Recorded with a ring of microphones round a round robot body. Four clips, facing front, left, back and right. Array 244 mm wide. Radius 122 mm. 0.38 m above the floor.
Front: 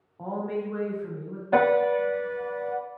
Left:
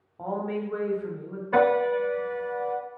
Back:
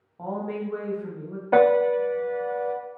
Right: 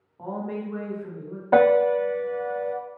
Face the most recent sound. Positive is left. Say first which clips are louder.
# right 4 dB, back 3 dB
turn(degrees=-105)